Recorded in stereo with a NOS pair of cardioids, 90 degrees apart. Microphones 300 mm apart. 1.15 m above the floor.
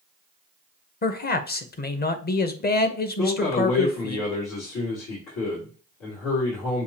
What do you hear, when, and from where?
1.0 s a man speaking: 35° left, 1.0 m
3.2 s a man speaking: 65° left, 2.5 m